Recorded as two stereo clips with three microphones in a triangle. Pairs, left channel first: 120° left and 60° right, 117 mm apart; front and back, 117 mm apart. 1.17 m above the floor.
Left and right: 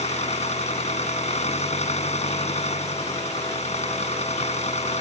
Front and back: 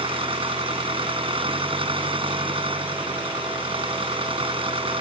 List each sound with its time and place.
0.0 s an engine running: 140° left